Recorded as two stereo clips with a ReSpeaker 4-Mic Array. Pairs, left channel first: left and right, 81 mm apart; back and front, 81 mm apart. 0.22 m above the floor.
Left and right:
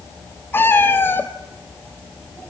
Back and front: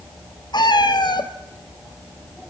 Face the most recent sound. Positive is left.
turn(degrees=155)